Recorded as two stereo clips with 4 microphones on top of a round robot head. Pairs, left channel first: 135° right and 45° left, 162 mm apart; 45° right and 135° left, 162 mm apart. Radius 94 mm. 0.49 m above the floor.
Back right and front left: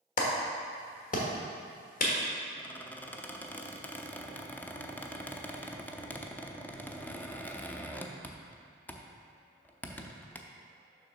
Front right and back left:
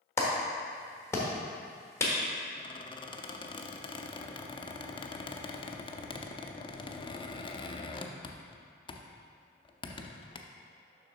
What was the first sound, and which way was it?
A clap, 115° right.